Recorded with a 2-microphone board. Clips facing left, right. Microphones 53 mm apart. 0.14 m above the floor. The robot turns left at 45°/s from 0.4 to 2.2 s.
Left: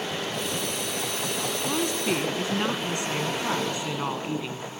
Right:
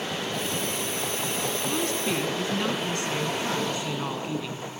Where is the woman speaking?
20° left (ahead or behind), 1.4 m.